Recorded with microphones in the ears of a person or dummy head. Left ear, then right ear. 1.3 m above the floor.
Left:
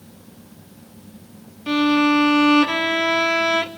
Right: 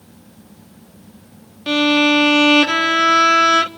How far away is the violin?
About 0.6 m.